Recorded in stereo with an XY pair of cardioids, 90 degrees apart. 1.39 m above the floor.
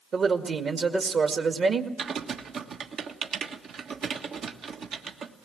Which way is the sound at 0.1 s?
60° right.